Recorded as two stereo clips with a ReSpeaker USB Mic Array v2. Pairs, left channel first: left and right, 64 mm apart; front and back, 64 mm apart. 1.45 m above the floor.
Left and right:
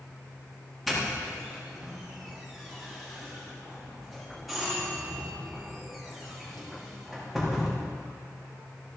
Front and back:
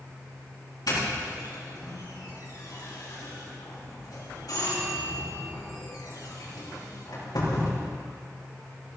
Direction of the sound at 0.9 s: Straight ahead.